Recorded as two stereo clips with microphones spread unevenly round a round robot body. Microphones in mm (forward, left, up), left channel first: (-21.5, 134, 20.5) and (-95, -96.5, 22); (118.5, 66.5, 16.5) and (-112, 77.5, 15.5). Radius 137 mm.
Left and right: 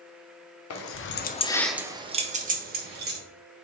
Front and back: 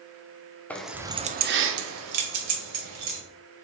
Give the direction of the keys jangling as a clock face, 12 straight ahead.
9 o'clock.